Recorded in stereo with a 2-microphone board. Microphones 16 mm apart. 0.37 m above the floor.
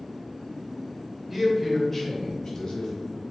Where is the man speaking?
15° right (ahead or behind), 1.1 m; by 2.9 s 35° left (ahead or behind), 1.5 m.